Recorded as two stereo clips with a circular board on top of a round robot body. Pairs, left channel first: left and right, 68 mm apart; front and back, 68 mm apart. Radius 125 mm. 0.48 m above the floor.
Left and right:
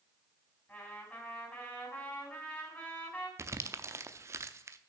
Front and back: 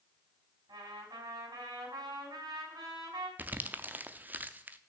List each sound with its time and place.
0.7 s a trumpet: 165° left, 4 m
3.4 s crumpling: 120° right, 0.7 m